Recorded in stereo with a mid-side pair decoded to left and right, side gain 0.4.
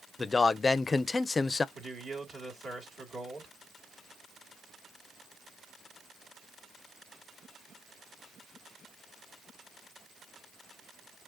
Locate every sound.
0.2 s a man speaking: 35° left, 0.5 m
1.8 s a man speaking: 55° right, 2.5 m